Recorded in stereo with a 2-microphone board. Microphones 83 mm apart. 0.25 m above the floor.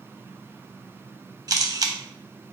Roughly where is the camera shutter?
Right.